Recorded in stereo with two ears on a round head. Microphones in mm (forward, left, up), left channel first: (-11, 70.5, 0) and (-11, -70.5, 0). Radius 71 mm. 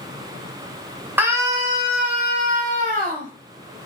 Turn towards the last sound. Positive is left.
turn(degrees=-60)  # may be behind; listen again after turning